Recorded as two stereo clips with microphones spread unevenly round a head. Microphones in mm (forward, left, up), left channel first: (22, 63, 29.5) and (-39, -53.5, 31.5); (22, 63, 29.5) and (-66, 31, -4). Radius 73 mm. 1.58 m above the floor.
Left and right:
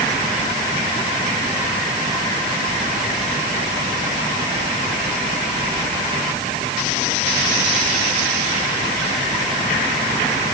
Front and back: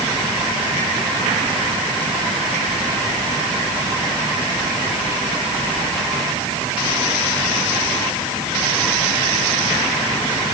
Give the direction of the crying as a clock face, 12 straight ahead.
I don't hear crying.